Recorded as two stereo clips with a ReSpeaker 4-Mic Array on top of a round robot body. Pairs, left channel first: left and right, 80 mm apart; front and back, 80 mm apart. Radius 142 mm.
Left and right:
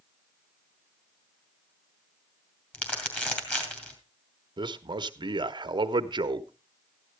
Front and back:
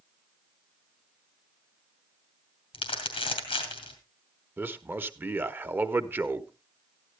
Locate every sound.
2.7 s crumpling: 20° left, 3 m
4.6 s a man speaking: 115° right, 1.0 m